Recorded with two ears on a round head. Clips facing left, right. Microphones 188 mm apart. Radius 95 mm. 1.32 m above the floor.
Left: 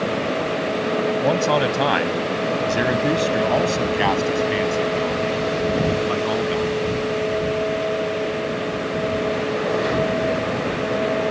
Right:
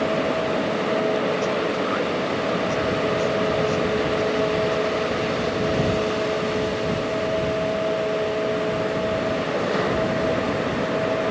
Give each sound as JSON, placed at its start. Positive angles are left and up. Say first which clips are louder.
{"t": 1.2, "sound": "a man speaking", "louder": "left 4 dB", "side_deg": 75}